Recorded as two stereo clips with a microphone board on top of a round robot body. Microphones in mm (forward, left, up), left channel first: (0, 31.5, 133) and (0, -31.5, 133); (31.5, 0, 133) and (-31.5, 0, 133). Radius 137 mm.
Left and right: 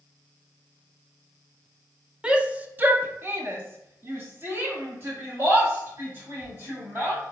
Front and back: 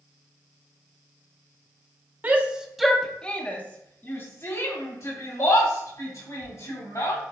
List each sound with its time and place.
2.2 s a shout: 150° right, 0.8 m; by 7.2 s 30° right, 2.5 m